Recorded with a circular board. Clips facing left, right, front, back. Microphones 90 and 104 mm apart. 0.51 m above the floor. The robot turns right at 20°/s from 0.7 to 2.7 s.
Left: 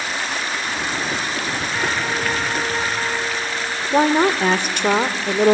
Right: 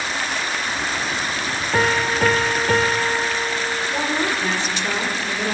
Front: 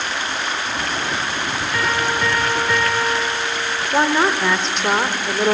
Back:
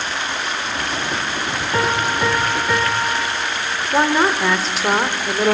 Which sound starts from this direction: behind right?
A piano, at 1.7 s.